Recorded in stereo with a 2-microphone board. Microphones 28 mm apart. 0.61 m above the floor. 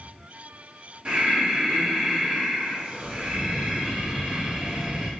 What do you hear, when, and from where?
1.1 s breathing: 40° right (ahead or behind), 1.1 m